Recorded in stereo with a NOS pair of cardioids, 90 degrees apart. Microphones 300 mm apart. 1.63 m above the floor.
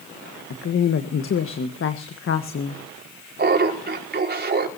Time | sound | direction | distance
0.5 | a woman speaking | 45° left | 1.6 m
3.4 | laughter | 35° right | 5 m